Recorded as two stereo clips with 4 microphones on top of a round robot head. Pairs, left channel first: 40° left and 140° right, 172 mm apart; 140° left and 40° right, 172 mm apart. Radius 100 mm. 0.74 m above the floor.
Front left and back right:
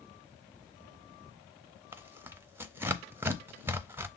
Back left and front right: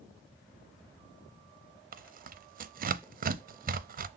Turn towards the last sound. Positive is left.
turn(degrees=-65)